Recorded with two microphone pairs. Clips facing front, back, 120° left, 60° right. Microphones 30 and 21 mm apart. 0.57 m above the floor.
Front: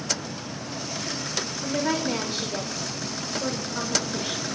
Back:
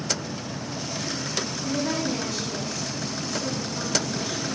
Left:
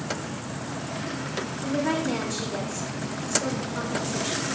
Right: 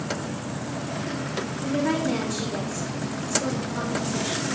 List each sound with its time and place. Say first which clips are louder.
1.6 s a woman speaking: front 2 dB, right 1 dB; 35° left, 1.8 m